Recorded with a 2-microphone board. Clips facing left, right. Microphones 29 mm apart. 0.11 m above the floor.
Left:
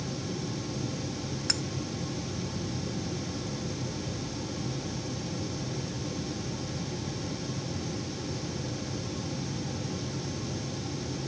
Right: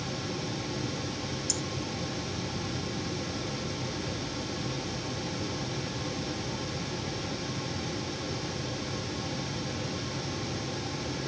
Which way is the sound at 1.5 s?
70° left (ahead or behind).